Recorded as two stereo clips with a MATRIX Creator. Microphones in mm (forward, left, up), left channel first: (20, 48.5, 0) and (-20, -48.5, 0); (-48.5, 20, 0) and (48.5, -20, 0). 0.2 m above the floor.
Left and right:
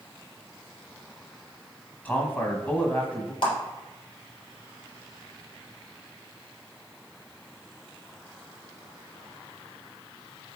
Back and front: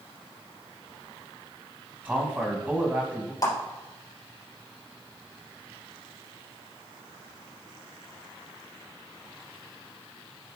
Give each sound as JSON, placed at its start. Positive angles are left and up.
{"t": 2.0, "sound": "a man speaking", "azimuth_deg": 25, "distance_m": 1.3}
{"t": 3.4, "sound": "a clap", "azimuth_deg": 105, "distance_m": 3.0}